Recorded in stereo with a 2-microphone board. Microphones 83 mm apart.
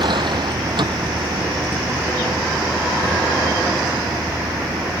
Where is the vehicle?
70° right (ahead or behind); by 5.0 s 75° right (ahead or behind).